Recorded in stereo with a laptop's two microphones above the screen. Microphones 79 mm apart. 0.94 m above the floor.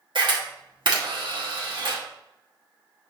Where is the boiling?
No boiling in this recording.